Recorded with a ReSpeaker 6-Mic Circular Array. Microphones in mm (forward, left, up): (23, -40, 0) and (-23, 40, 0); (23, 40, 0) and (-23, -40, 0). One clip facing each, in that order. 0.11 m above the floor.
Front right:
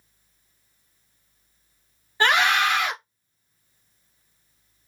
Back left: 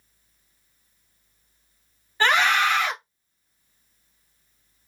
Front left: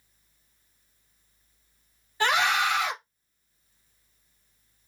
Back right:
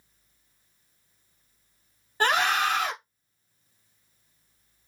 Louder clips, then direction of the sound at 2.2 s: Even, even; 130° right.